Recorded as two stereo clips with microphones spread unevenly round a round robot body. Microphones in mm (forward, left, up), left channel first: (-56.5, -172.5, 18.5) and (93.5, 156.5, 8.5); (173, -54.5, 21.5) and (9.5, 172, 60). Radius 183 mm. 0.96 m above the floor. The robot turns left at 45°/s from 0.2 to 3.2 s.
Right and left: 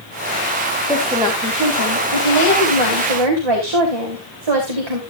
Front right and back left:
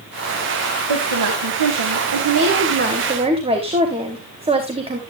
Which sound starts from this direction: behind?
A woman speaking, at 0.9 s.